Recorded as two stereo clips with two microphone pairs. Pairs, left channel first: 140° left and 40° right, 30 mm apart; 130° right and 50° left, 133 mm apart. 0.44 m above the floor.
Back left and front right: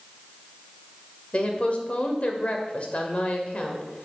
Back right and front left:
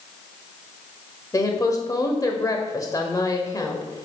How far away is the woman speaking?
About 1.3 m.